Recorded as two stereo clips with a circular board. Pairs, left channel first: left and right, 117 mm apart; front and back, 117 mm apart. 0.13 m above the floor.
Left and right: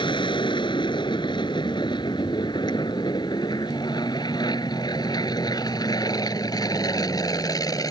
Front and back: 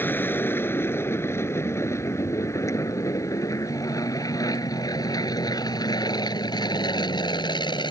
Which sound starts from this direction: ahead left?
An aircraft, at 0.0 s.